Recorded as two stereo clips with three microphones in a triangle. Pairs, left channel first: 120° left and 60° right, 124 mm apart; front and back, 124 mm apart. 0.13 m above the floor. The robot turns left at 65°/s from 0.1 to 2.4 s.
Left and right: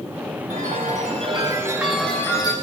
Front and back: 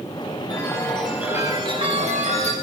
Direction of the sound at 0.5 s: 55° right.